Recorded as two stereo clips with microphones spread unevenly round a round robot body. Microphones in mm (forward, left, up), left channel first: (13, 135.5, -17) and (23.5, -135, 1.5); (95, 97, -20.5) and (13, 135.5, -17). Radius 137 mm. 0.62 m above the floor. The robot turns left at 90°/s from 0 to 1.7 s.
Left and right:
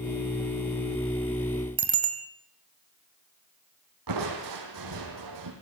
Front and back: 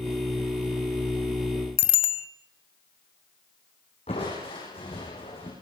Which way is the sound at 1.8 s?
15° right.